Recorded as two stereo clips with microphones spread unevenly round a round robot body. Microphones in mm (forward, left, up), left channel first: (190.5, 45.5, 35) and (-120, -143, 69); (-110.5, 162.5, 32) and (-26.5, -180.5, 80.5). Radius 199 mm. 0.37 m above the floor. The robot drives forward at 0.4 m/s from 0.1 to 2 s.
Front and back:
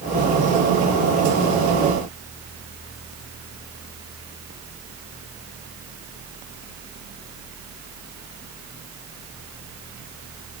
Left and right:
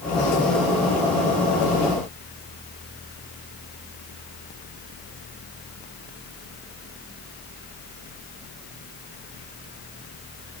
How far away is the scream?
I don't hear a scream.